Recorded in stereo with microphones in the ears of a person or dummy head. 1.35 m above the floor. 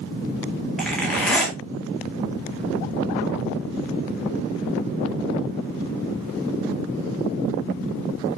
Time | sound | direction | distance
0.8 | a zipper | centre (ahead or behind) | 3 m